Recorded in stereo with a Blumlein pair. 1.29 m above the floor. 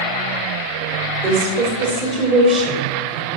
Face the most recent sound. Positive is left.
turn(degrees=-10)